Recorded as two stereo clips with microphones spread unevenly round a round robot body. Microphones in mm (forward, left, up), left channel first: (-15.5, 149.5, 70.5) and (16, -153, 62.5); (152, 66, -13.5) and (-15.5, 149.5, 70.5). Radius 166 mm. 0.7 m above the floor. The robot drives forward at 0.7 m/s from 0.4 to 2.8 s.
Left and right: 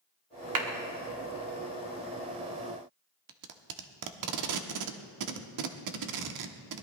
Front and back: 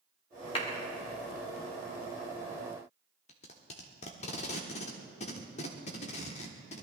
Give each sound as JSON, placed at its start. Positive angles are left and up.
{"t": 0.6, "sound": "a clap", "azimuth_deg": -75, "distance_m": 1.9}
{"t": 3.3, "sound": "tape being pulled", "azimuth_deg": -75, "distance_m": 1.2}